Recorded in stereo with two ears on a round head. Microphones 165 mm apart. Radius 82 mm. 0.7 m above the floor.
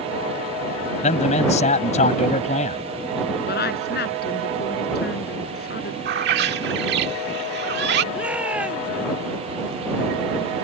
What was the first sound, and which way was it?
A man speaking, 40° left (ahead or behind).